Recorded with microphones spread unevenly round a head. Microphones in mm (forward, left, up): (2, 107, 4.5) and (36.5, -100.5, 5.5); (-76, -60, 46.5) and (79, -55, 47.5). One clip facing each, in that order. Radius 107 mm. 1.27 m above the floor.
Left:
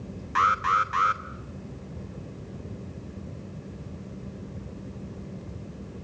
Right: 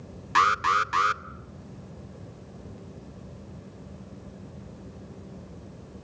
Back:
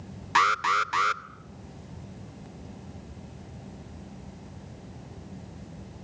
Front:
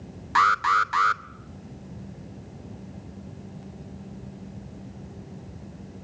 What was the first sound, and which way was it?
An alarm, 110° right.